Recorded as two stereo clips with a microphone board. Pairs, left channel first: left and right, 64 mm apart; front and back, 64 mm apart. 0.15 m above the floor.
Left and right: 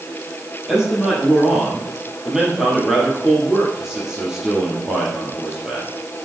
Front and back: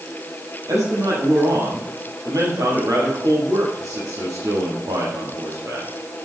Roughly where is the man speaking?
Behind.